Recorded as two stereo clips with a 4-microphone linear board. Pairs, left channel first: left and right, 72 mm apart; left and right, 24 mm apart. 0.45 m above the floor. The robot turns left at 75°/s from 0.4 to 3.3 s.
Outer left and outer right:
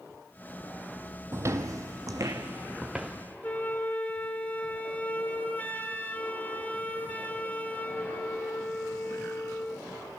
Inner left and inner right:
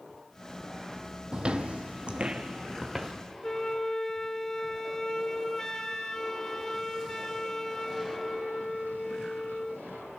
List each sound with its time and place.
1.3 s footsteps: 45° right (ahead or behind), 0.5 m; by 3.1 s 5° right (ahead or behind), 2.0 m
3.4 s a flute: 25° left (ahead or behind), 0.8 m